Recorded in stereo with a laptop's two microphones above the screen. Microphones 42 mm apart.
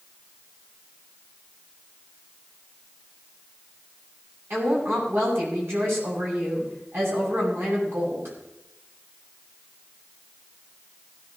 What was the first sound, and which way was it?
A woman speaking, 70° right (ahead or behind).